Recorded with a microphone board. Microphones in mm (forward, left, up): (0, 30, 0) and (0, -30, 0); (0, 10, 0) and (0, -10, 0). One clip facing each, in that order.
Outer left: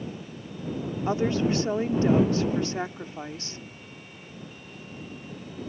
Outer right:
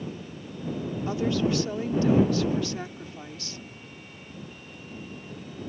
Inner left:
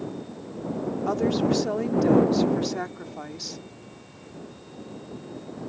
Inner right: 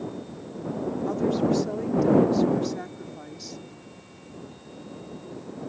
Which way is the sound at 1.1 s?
30° left (ahead or behind).